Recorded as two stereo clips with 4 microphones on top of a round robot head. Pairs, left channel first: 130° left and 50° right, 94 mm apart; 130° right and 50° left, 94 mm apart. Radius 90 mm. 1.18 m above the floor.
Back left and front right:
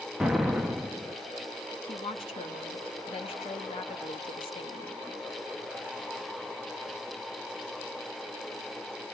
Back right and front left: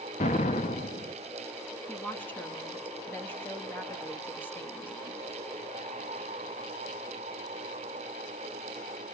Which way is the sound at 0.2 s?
135° right.